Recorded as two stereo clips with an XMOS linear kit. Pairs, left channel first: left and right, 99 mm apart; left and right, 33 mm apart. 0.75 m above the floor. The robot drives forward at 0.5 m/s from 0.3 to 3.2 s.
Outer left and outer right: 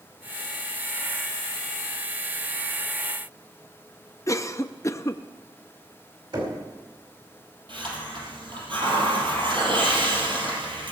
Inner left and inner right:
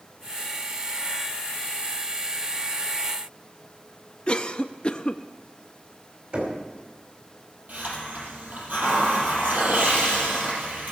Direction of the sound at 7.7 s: 60° right (ahead or behind).